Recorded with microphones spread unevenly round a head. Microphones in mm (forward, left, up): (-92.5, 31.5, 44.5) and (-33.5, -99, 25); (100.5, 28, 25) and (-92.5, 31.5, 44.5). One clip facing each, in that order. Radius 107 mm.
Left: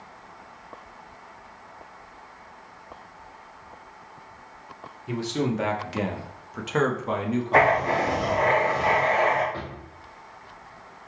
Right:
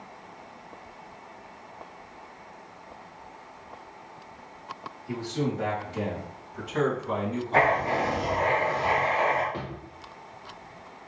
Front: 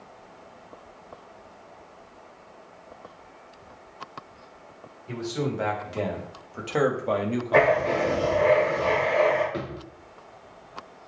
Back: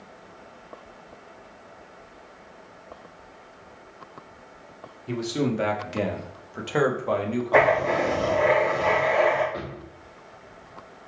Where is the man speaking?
130° left, 1.4 m; by 8.3 s 45° left, 1.0 m.